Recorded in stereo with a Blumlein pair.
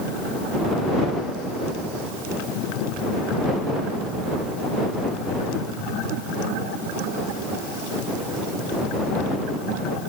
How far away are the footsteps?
No footsteps in this recording.